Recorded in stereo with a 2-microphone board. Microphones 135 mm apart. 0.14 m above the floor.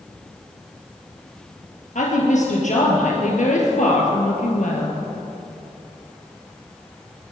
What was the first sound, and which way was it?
A woman speaking, 65° left (ahead or behind).